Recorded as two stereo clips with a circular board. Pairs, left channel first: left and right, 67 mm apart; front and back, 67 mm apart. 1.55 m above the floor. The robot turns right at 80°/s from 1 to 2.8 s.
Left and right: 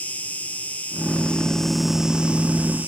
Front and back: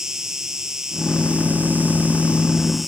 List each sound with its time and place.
0.0 s an insect: 120° left; by 2.9 s 100° right